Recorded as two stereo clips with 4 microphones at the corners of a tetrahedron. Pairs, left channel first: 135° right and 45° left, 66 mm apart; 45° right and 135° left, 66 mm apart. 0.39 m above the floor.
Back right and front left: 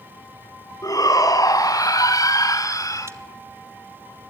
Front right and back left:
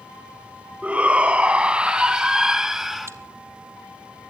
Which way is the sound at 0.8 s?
155° right.